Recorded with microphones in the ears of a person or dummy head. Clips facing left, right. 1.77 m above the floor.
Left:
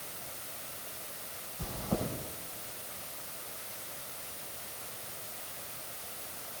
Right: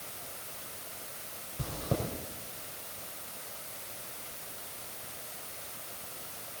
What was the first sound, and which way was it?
Chewing, 60° right (ahead or behind).